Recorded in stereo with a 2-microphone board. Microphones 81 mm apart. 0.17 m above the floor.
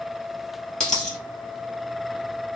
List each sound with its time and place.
0.8 s a dropped coin: 5° left (ahead or behind), 1.7 m